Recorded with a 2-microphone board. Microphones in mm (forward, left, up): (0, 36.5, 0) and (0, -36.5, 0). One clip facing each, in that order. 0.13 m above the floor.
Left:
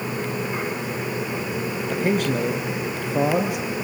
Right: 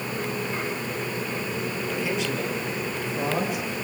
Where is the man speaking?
45° left (ahead or behind), 3 m; by 3.8 s 60° left (ahead or behind), 3 m.